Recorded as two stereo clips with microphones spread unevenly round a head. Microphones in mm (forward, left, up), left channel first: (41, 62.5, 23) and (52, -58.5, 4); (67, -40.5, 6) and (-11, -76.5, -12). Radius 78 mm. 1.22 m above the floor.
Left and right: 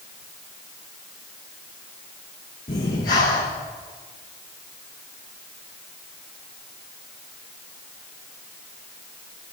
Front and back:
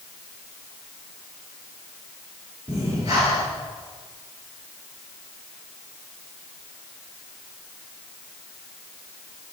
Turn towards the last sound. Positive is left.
turn(degrees=135)